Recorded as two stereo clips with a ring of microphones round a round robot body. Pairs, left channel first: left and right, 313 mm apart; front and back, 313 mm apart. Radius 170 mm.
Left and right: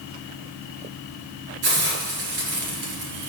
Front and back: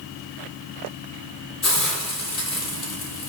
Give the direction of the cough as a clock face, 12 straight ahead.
I don't hear a cough.